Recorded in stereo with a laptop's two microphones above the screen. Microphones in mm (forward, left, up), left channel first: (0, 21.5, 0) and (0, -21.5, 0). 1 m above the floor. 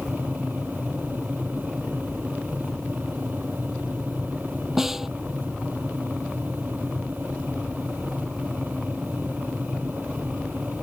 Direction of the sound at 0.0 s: 45° right (ahead or behind).